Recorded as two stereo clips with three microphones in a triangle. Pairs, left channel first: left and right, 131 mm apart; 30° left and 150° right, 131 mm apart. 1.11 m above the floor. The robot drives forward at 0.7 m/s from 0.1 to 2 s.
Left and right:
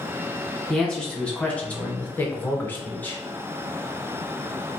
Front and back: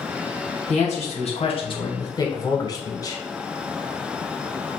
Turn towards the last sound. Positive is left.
turn(degrees=30)